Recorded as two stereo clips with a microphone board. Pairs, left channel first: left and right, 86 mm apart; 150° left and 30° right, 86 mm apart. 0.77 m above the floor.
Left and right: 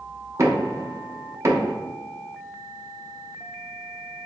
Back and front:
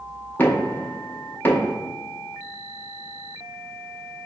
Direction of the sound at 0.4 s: 145° right.